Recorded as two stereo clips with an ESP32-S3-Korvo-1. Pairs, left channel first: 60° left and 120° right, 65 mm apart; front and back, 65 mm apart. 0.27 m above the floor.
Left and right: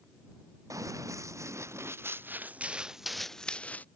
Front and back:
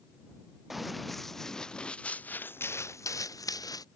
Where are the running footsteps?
95° right; by 3.9 s 5° right.